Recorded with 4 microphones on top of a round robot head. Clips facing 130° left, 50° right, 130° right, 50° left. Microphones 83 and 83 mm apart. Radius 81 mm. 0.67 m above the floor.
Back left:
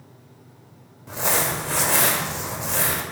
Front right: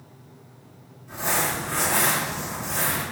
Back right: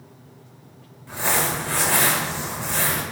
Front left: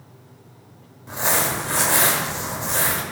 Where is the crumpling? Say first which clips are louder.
Back left 2 dB, front left 1 dB; 120° left, 1.3 m.